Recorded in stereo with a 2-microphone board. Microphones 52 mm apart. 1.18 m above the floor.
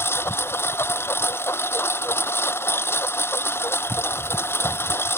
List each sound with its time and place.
0.0 s a lawn mower: 55° left (ahead or behind)